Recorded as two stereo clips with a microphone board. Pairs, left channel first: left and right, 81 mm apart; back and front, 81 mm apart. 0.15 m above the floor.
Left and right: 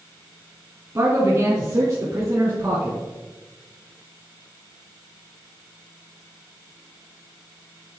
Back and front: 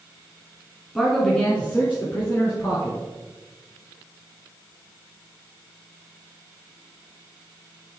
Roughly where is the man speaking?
Right.